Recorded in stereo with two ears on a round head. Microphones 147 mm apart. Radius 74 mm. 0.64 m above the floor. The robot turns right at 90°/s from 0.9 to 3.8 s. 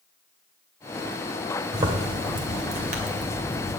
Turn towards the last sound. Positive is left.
turn(degrees=25)